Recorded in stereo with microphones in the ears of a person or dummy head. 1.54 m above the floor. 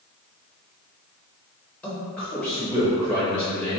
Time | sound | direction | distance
1.8 | a man speaking | 5° left (ahead or behind) | 0.6 m